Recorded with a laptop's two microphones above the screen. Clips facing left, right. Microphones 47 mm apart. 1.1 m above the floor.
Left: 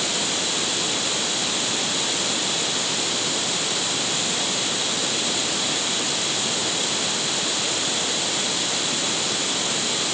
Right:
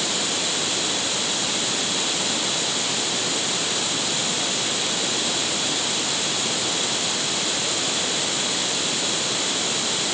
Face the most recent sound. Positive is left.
No sound to turn to.